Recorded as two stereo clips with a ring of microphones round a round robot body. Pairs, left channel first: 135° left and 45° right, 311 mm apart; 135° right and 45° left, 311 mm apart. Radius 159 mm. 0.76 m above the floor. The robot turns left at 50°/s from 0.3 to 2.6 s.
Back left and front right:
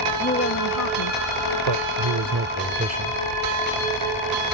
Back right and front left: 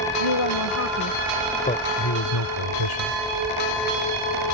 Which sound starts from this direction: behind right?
A woman speaking, at 0.2 s.